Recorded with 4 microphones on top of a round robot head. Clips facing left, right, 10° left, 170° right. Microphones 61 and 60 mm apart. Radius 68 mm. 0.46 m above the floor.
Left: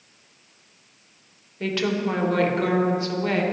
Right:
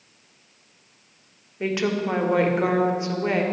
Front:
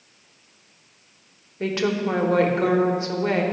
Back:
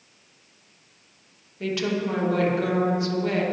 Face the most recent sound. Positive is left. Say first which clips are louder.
# even, front 3 dB
turn(degrees=-25)